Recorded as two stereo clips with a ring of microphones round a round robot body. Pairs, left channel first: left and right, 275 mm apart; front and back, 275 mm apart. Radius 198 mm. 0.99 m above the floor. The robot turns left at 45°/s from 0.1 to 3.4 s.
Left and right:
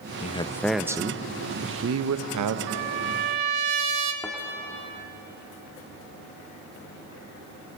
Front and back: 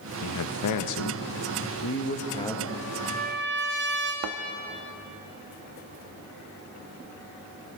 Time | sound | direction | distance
0.2 | a man speaking | 25° left | 0.9 m
2.7 | a trumpet | 85° right | 0.7 m
4.2 | a thud | straight behind | 0.6 m